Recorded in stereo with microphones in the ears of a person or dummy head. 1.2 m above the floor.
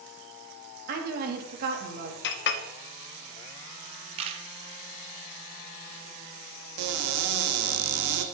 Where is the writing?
I don't hear writing.